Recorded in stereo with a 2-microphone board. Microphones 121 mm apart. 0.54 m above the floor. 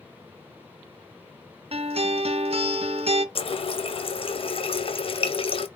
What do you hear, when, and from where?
1.7 s a guitar: 55° right (ahead or behind), 0.6 m
3.4 s a running tap: 50° left (ahead or behind), 0.5 m